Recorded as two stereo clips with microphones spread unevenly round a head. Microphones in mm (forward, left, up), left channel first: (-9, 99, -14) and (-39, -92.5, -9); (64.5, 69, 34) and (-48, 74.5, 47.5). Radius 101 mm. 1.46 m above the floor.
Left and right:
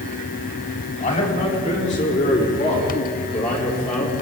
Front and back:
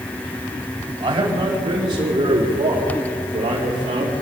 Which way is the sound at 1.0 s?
140° left.